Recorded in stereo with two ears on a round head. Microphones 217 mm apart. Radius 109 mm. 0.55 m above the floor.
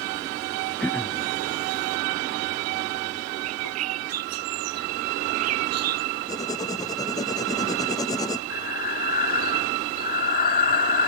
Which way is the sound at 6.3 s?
15° left (ahead or behind).